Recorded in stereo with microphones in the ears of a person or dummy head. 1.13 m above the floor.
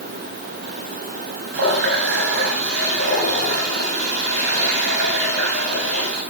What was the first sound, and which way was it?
A running tap, 60° right (ahead or behind).